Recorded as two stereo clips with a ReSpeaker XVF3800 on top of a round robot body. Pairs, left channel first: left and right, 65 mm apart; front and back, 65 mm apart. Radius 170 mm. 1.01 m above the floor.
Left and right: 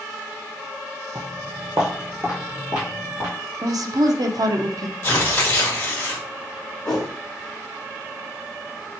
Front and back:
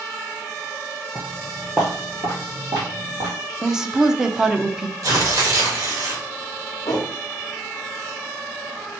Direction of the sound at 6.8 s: 40° left.